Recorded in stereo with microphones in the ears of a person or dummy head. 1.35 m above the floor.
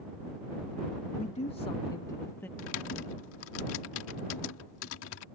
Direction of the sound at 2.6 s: 85° left.